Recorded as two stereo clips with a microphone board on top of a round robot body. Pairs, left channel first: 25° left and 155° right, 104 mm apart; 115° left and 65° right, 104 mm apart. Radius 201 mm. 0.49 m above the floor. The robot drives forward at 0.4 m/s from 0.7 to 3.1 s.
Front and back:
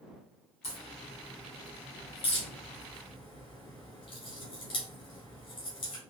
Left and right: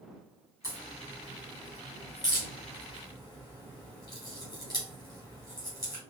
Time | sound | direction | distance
0.6 | a crack | 45° left | 3 m